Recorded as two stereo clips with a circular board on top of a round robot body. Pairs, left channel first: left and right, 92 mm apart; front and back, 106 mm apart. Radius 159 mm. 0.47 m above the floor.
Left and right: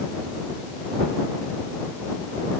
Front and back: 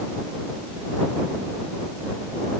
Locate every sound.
Only background noise.